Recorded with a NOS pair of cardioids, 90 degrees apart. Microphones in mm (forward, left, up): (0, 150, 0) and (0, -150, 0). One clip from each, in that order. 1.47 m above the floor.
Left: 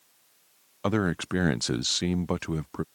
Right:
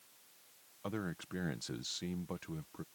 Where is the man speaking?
70° left.